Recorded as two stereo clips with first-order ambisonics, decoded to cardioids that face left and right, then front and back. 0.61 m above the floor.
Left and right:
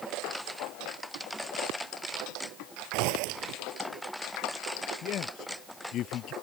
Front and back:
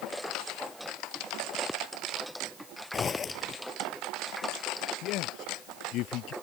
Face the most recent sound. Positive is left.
turn(degrees=40)